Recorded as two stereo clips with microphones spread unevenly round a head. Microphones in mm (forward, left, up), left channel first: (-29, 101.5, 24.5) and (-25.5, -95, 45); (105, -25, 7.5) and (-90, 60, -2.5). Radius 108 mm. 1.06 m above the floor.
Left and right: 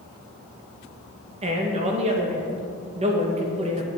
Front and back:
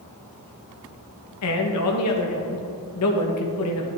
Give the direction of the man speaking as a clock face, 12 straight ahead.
1 o'clock.